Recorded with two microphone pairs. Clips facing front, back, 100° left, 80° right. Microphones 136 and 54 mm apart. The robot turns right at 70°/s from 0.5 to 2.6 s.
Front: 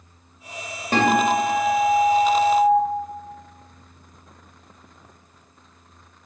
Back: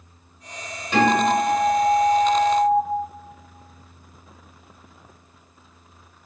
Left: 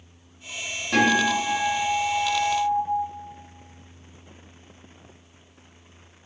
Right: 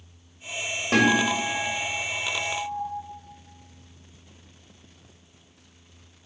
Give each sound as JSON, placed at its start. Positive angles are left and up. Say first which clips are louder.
{"t": 0.9, "sound": "a guitar", "louder": "even, left 1 dB", "azimuth_deg": -45, "distance_m": 2.0}